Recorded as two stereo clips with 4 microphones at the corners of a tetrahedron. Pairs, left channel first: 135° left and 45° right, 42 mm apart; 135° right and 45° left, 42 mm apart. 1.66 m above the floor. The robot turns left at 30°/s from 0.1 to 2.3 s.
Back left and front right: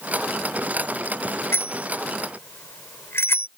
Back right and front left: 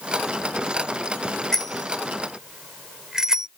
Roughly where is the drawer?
No drawer in this recording.